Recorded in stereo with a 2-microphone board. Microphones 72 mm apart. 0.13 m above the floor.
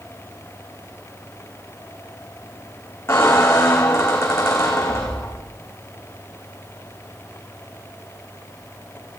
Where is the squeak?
35° left (ahead or behind), 3.5 m.